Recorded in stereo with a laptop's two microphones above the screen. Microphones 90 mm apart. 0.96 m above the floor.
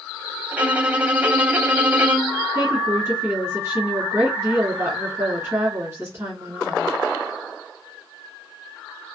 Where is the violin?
20° right (ahead or behind), 0.8 m.